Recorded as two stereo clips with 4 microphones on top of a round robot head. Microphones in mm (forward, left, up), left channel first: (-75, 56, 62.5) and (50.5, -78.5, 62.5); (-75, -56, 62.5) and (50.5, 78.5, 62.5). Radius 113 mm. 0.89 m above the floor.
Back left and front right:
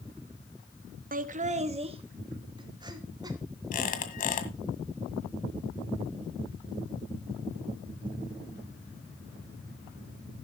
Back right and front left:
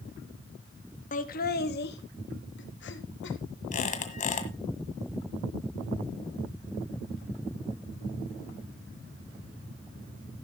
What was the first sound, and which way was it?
Laughter, 85° right.